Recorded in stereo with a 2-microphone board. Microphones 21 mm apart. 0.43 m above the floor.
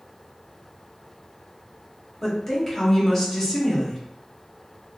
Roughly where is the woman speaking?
Left.